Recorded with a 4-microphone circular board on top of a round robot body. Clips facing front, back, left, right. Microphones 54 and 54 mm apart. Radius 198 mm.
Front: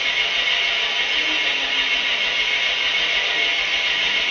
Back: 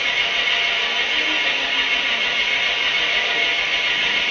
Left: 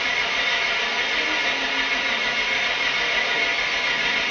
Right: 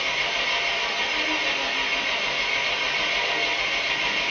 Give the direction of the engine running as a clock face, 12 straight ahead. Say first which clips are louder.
Back 1 dB, left 3 dB; 9 o'clock.